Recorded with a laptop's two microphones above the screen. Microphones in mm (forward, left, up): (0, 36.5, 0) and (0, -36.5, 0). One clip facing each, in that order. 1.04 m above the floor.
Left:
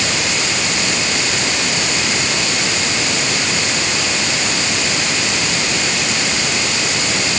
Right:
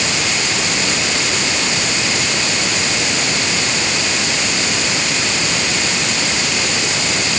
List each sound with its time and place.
Only background noise.